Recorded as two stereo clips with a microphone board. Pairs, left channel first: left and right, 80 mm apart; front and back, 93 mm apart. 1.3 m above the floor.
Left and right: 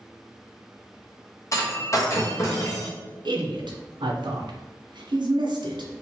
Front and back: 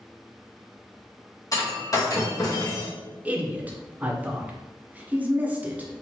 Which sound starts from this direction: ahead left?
Breaking glass, at 1.5 s.